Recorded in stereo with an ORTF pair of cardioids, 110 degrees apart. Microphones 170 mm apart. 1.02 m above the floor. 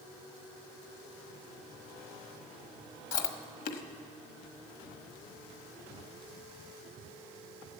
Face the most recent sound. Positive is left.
turn(degrees=55)